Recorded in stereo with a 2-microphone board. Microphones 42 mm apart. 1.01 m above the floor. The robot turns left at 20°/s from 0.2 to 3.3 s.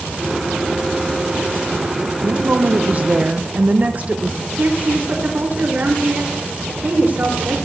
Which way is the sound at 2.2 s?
50° right (ahead or behind).